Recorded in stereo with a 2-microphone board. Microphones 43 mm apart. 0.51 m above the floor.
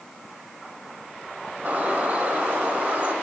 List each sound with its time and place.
1.6 s a bird: 40° right (ahead or behind), 2.0 m